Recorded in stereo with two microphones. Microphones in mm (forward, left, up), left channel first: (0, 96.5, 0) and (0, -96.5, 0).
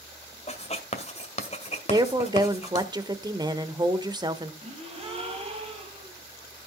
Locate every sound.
0.5 s writing: 35° left (ahead or behind), 1.9 m
1.9 s a woman speaking: 20° right (ahead or behind), 1.2 m
4.6 s a gasp: 30° right (ahead or behind), 4.5 m